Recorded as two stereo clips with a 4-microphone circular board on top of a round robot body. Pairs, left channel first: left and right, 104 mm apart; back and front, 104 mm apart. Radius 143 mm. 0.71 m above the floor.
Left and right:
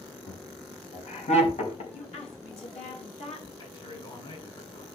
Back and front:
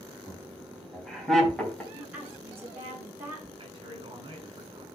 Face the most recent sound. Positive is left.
turn(degrees=50)